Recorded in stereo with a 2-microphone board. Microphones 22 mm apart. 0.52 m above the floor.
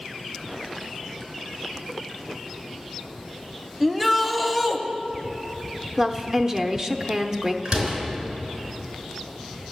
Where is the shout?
5° right (ahead or behind), 1.0 m.